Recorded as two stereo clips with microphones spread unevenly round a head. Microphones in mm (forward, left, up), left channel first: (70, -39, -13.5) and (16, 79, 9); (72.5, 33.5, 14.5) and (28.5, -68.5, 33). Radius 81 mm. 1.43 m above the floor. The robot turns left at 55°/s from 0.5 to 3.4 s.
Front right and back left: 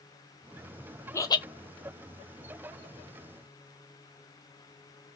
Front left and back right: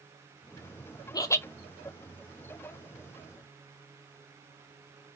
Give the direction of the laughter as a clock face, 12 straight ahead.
12 o'clock.